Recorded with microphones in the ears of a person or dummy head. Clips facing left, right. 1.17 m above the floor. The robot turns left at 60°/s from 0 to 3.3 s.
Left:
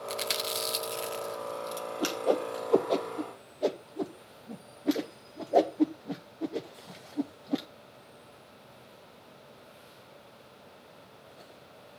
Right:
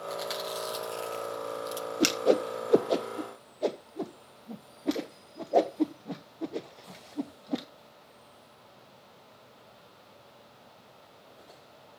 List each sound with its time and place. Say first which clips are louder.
0.1 s chewing: even; 30° left (ahead or behind), 0.7 m; by 1.9 s 5° right (ahead or behind), 0.7 m
2.0 s a whoosh: right 4 dB; 35° right (ahead or behind), 0.7 m; by 7.7 s 5° right (ahead or behind), 0.7 m